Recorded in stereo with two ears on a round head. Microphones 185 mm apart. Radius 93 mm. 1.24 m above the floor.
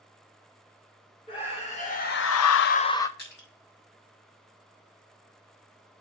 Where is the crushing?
50° left (ahead or behind), 4 m.